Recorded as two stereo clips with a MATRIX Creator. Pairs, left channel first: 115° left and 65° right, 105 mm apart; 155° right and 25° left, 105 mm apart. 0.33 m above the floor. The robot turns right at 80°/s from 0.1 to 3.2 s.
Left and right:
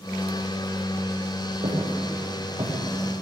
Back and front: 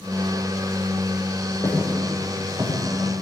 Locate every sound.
1.6 s footsteps: 100° right, 9 m; by 3.2 s 20° left, 8.5 m